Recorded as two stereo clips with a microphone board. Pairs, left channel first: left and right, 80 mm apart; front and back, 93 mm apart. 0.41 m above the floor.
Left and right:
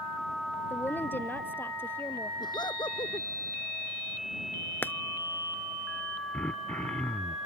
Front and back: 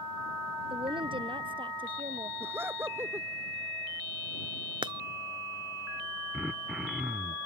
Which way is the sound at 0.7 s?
155° left.